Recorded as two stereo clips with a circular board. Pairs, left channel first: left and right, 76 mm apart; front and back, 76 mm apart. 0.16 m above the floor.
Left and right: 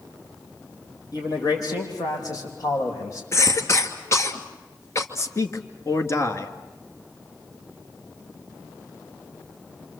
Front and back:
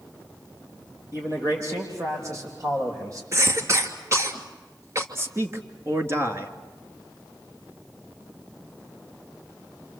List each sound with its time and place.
1.1 s a man speaking: 125° left, 6 m; by 3.2 s 135° left, 7 m
3.3 s a cough: 135° left, 2.5 m
5.2 s a man speaking: 130° left, 2.0 m